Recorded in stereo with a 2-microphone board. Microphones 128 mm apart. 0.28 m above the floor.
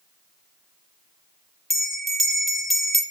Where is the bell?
Centre (ahead or behind), 1.0 m.